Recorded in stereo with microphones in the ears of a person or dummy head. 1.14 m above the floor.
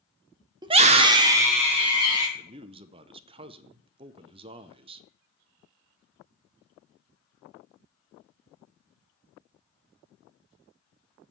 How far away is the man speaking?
About 0.6 m.